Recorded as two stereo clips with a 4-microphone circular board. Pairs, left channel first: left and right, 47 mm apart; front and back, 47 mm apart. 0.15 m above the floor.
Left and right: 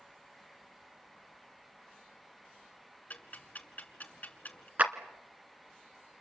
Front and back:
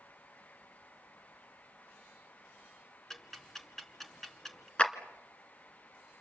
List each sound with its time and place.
3.1 s ticking: 80° left, 2 m
4.8 s a clap: 55° right, 1.6 m